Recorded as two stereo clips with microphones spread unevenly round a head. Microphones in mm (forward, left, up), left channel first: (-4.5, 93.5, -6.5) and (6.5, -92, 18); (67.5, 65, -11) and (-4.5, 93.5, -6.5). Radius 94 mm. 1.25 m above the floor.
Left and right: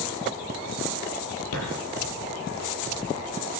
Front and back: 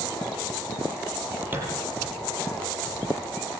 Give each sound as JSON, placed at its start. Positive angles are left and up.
{"t": 1.5, "sound": "a thud", "azimuth_deg": 95, "distance_m": 9.0}